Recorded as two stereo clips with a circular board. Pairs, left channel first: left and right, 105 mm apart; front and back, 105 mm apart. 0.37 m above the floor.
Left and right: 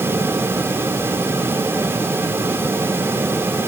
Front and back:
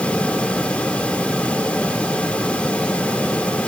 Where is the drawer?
No drawer in this recording.